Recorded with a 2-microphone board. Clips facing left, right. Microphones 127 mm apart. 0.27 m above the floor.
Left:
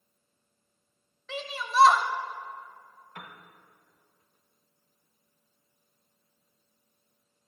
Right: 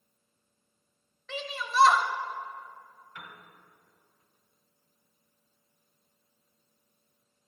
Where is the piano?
55° left (ahead or behind), 0.9 m.